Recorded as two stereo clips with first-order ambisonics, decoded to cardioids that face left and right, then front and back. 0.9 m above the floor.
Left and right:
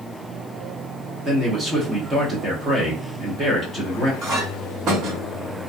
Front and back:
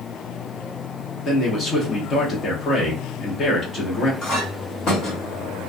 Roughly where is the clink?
Ahead right.